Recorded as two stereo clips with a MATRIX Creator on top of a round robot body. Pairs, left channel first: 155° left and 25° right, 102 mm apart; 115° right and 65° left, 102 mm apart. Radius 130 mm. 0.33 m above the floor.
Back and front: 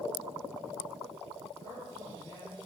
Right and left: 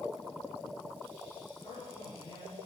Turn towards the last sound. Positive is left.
turn(degrees=-150)